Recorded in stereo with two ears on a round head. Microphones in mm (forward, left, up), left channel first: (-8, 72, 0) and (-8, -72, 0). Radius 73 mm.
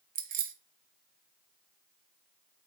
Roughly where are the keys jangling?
Right.